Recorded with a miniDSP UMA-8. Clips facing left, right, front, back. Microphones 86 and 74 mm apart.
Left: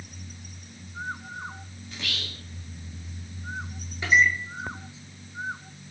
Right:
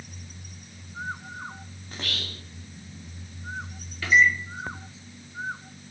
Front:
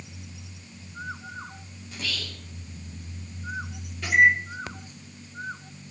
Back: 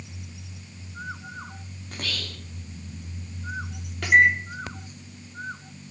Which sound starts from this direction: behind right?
Whispering, at 1.9 s.